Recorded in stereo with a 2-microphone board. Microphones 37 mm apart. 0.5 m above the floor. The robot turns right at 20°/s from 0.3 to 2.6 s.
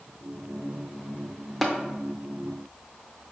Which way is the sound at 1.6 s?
5° left (ahead or behind).